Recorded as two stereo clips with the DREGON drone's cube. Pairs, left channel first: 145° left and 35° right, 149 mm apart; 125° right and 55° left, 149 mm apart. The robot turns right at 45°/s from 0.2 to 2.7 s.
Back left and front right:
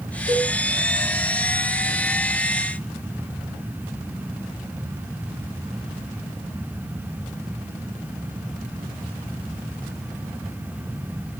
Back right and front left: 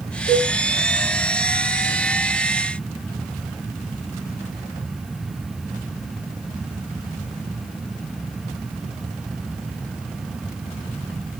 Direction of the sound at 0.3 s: 30° left.